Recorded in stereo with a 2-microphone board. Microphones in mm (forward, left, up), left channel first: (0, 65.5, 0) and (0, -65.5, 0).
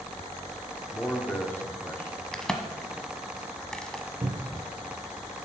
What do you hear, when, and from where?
0.9 s a man speaking: 15° left (ahead or behind), 1.5 m
2.3 s a crack: 5° left (ahead or behind), 1.1 m
4.2 s a cupboard door: 45° right (ahead or behind), 0.6 m